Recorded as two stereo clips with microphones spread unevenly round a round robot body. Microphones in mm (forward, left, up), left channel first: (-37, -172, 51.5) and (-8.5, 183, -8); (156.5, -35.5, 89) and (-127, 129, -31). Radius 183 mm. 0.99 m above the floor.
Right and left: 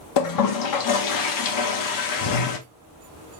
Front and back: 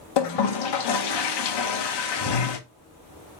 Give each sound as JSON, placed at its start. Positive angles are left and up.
{"t": 0.2, "sound": "a toilet flushing", "azimuth_deg": -60, "distance_m": 1.0}